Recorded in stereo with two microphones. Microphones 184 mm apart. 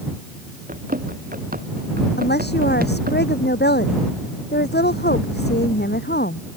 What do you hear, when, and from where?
0.7 s running footsteps: 50° right (ahead or behind)
2.2 s a woman speaking: 60° left (ahead or behind)